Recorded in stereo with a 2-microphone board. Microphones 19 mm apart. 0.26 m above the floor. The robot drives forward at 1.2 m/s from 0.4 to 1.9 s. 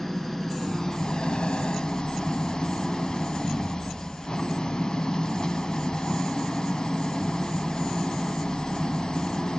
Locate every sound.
0.0 s an engine running: 20° left (ahead or behind), 1.4 m; by 9.6 s 40° left (ahead or behind), 0.8 m